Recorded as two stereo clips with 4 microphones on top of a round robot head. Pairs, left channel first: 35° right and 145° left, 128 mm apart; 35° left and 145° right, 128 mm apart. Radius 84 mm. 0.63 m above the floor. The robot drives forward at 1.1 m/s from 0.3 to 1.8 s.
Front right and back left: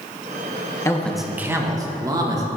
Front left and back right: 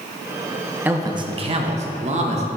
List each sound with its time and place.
0.8 s a man speaking: 80° right, 0.8 m; by 2.5 s 155° right, 1.2 m